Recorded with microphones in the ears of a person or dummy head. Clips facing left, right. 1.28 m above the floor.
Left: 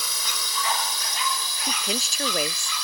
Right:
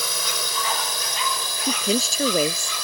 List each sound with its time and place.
0.0 s a drone: 50° right (ahead or behind); by 2.8 s 45° right (ahead or behind)
1.6 s a woman speaking: 85° right